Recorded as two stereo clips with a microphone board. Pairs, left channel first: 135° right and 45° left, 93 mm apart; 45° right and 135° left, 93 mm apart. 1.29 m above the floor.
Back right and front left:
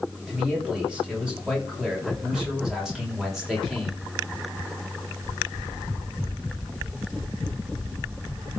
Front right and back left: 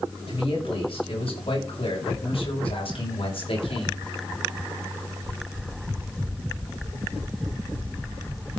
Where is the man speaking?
35° right, 7.5 m; by 4.0 s 45° right, 5 m.